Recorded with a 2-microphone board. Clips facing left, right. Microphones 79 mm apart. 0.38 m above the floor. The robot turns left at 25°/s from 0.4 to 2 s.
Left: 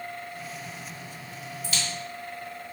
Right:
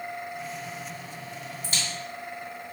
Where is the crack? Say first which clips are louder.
Left 1 dB; 35° right (ahead or behind), 1.6 m; by 1.8 s 30° right (ahead or behind), 1.6 m.